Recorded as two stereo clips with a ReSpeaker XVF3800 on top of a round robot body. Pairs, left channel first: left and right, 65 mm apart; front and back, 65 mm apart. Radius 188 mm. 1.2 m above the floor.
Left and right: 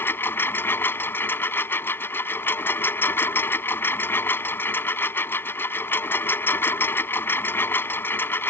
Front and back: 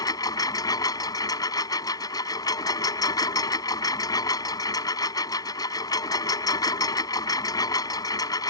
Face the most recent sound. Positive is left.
turn(degrees=30)